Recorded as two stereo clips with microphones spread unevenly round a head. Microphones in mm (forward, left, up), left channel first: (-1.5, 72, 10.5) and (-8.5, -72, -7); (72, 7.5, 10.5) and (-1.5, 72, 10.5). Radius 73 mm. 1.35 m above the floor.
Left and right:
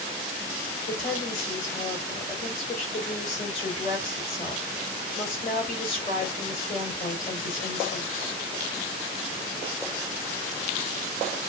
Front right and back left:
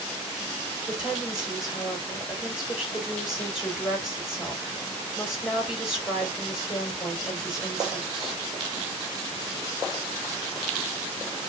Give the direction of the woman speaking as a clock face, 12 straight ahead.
10 o'clock.